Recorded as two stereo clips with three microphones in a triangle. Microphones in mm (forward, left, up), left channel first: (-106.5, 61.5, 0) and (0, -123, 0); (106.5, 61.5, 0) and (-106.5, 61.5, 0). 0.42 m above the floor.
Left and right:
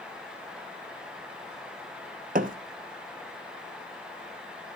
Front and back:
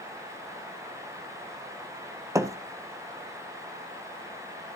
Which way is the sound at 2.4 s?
105° right.